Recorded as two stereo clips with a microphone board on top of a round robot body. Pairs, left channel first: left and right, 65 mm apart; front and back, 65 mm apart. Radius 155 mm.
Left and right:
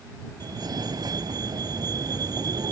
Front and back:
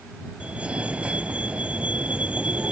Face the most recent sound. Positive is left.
turn(degrees=-110)